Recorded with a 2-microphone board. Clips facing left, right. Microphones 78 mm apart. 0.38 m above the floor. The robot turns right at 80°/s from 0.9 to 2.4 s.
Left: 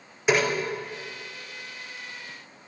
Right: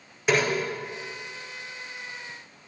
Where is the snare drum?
5° left (ahead or behind), 5.5 m.